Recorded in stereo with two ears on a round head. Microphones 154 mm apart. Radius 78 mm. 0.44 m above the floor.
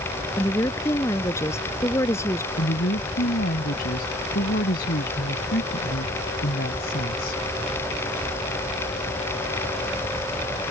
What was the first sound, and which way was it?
A woman speaking, 15° left (ahead or behind).